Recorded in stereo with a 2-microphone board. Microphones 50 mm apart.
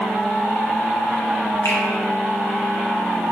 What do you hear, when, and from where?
1.6 s a finger snap: 85° left, 0.7 m